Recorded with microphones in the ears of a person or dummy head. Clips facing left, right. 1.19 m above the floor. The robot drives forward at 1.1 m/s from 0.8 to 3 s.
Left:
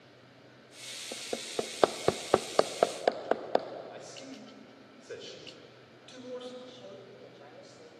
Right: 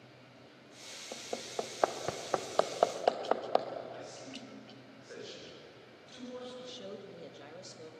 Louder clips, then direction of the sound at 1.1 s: Left 3 dB; 20° left (ahead or behind).